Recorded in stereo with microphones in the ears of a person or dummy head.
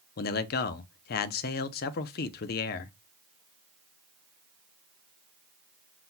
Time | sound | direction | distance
0.2 | a man speaking | 50° left (ahead or behind) | 0.6 m